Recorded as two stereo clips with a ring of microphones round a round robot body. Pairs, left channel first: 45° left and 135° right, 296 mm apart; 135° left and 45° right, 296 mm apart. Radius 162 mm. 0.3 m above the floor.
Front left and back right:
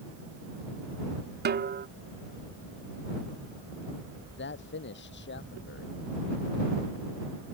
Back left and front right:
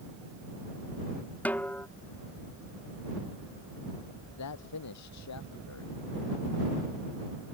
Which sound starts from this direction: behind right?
A snare drum, at 1.4 s.